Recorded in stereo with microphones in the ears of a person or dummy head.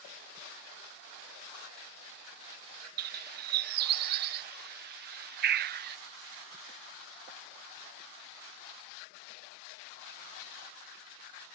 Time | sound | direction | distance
3.0 | a bird | 55° right (ahead or behind) | ?